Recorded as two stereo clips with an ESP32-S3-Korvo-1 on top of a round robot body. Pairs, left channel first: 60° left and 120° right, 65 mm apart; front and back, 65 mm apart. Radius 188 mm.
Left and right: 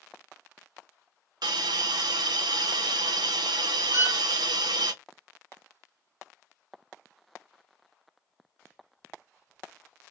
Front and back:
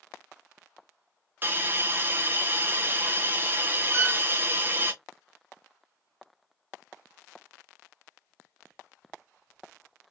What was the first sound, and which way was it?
A hiss, 120° right.